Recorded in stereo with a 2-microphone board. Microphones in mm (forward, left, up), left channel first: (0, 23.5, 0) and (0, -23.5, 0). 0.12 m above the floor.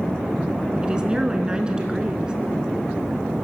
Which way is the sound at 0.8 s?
20° right (ahead or behind).